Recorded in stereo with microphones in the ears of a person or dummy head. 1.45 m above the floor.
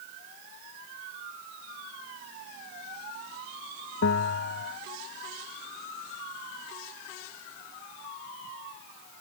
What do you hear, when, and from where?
4.0 s a bell: 70° left (ahead or behind)